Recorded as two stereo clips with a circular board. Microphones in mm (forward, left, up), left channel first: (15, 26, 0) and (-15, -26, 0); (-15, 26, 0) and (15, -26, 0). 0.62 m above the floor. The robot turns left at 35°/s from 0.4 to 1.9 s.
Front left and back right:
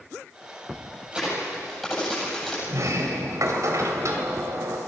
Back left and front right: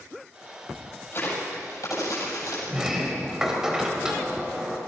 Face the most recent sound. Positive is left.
turn(degrees=-140)